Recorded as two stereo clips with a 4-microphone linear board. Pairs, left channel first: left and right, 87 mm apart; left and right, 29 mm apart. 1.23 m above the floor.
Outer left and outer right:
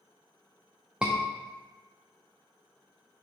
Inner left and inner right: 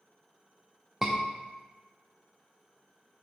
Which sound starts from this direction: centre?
A scream, at 1.0 s.